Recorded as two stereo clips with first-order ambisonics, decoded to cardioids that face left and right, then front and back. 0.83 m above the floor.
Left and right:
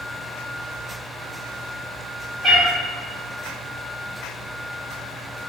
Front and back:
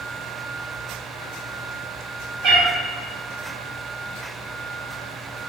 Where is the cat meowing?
170° left, 1.7 m.